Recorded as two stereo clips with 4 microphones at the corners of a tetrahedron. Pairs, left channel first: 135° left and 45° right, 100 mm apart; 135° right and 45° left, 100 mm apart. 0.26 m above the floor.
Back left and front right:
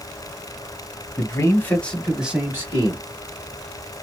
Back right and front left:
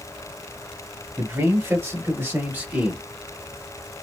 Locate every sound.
1.2 s a man speaking: 105° left, 1.4 m; by 3.0 s 25° right, 1.3 m